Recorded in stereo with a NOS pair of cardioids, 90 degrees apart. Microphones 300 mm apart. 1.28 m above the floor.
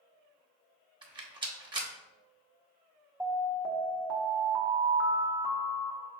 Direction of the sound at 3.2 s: 10° right.